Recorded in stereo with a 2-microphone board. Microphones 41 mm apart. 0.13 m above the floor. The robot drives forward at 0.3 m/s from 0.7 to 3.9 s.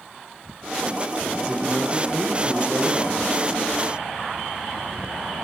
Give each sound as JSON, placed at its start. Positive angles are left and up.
{"t": 1.4, "sound": "a man speaking", "side_deg": -35, "distance_m": 4.0}